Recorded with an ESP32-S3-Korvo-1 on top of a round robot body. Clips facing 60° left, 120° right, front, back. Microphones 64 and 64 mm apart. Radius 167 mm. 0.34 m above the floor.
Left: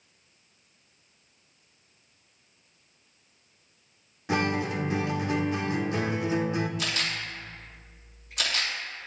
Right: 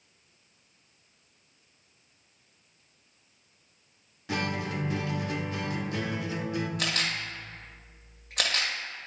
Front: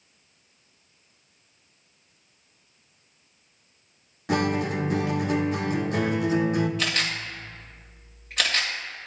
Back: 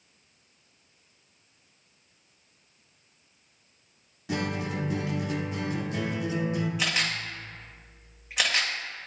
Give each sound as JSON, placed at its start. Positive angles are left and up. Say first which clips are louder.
{"t": 4.3, "sound": "a guitar", "louder": "left 4 dB, front 6 dB", "azimuth_deg": 0, "distance_m": 0.9}
{"t": 6.8, "sound": "a camera shutter", "louder": "even, front 1 dB", "azimuth_deg": -100, "distance_m": 2.0}